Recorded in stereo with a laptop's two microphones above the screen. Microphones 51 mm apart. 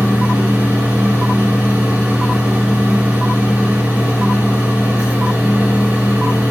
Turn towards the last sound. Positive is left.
turn(degrees=-45)  # may be behind; listen again after turning